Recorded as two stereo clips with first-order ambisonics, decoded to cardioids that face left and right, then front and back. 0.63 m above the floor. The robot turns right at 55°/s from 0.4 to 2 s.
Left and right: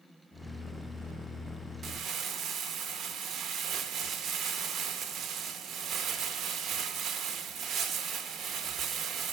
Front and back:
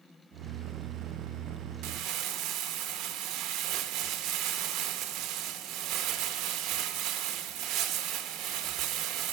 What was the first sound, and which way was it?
Crumpling, 150° right.